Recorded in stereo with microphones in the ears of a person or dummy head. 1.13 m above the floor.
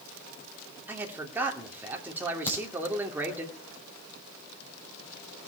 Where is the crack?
15° left (ahead or behind), 7 m.